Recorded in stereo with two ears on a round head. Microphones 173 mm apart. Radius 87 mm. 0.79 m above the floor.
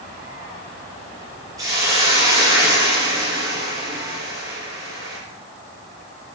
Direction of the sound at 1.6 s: 20° right (ahead or behind).